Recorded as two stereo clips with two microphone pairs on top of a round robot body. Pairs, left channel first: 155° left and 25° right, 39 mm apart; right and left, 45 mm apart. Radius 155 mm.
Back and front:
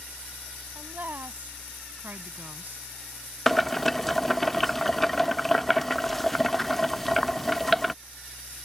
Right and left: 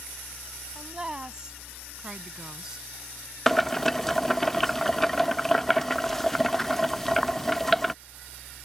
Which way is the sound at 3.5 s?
165° right.